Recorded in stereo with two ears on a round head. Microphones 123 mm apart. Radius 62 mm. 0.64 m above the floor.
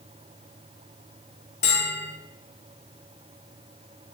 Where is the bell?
50° left (ahead or behind), 0.7 m.